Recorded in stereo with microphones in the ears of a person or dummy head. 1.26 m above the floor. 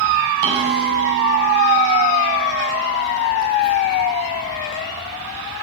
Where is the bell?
60° right (ahead or behind), 7.5 m.